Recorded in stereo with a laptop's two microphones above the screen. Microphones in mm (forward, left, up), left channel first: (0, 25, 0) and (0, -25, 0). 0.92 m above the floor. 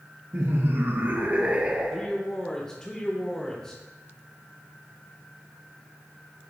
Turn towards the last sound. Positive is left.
turn(degrees=10)  # may be behind; listen again after turning